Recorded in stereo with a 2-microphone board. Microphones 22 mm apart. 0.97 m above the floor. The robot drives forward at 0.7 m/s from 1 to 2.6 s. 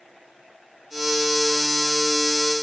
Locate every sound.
Only background noise.